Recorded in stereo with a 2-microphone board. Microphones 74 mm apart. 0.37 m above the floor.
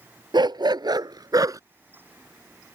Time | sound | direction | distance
0.3 | a dog barking | 80° right | ?